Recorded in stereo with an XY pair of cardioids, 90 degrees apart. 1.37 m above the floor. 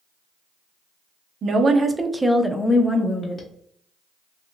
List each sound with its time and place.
1.4 s a woman speaking: 55° right, 0.6 m; by 3.5 s 45° left, 0.8 m